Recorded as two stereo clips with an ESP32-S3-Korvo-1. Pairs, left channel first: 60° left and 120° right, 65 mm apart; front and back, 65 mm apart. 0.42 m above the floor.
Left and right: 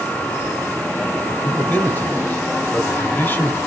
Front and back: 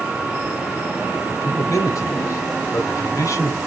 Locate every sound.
1.3 s a man speaking: 10° left, 1.8 m